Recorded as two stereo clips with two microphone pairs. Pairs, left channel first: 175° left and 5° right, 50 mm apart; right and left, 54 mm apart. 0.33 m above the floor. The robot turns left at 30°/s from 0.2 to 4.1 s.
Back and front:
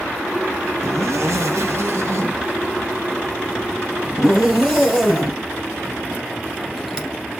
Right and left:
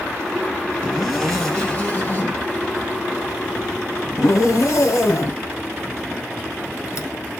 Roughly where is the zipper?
Ahead.